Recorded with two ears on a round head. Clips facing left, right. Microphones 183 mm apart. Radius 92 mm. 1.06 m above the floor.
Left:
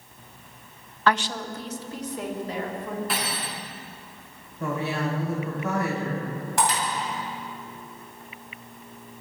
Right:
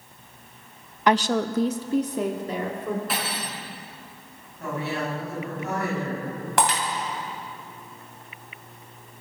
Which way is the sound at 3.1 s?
Centre (ahead or behind).